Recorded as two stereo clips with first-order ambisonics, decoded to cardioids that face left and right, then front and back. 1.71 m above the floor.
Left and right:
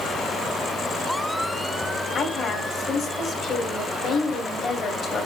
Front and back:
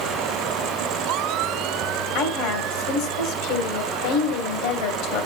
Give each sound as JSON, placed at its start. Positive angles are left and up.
{"t": 2.1, "sound": "a woman speaking", "azimuth_deg": 20, "distance_m": 1.8}